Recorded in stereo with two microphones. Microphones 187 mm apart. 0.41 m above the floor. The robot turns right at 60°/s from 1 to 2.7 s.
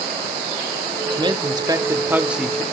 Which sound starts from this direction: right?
A man speaking, at 1.1 s.